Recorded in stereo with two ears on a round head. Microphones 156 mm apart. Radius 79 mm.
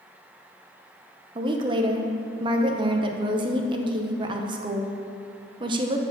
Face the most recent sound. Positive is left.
turn(degrees=-25)  # may be behind; listen again after turning